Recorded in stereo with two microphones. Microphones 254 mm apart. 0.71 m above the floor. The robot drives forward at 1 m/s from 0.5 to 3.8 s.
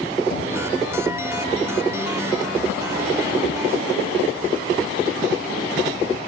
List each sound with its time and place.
0.3 s knocking: 55° left (ahead or behind), 4 m